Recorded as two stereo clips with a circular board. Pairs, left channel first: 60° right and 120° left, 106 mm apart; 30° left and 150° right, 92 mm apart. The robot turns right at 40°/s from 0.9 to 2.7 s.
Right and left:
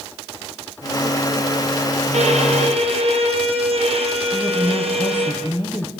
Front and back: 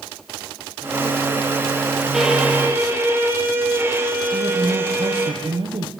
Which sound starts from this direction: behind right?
A woman speaking, at 4.3 s.